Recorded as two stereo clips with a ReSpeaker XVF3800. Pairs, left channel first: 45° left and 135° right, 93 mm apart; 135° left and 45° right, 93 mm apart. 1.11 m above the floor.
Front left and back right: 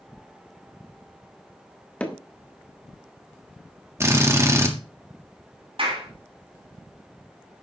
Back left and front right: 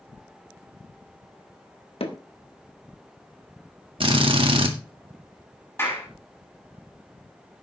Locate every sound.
2.0 s hammering: 120° left, 1.4 m
4.0 s a drill: 75° right, 1.7 m
5.8 s a clap: 160° right, 7 m